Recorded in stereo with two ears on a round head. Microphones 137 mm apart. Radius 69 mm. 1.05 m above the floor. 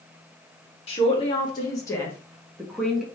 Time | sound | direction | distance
0.9 | a man speaking | 40° left (ahead or behind) | 2.0 m